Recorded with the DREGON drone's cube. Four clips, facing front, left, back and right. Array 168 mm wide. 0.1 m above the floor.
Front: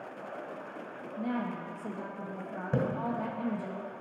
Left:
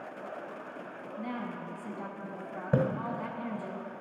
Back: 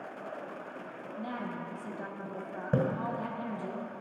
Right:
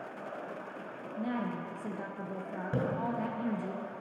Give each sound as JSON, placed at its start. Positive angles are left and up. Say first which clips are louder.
{"t": 1.2, "sound": "a woman speaking", "louder": "right 3 dB, front 4 dB", "azimuth_deg": -75, "distance_m": 1.7}
{"t": 2.7, "sound": "a splash", "louder": "left 7 dB, back 2 dB", "azimuth_deg": 115, "distance_m": 1.5}